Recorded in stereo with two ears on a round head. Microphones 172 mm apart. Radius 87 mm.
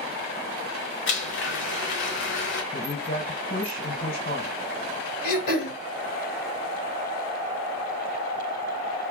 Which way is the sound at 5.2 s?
55° left (ahead or behind).